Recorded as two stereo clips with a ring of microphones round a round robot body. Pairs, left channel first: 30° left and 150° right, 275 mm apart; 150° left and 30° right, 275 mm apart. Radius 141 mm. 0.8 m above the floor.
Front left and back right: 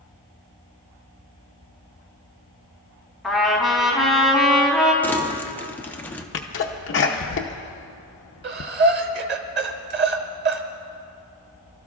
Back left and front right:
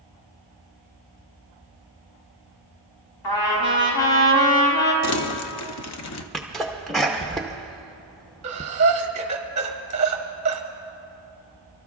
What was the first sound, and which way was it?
A trumpet, 120° left.